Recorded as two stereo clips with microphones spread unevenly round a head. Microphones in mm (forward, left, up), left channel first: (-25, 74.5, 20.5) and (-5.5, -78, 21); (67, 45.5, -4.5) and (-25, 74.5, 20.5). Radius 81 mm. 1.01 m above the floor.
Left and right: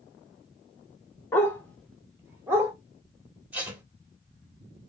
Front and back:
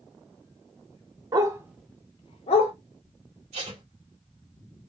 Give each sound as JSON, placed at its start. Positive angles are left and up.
{"t": 1.3, "sound": "a dog barking", "azimuth_deg": 170, "distance_m": 0.7}
{"t": 3.5, "sound": "tape being pulled", "azimuth_deg": -160, "distance_m": 1.5}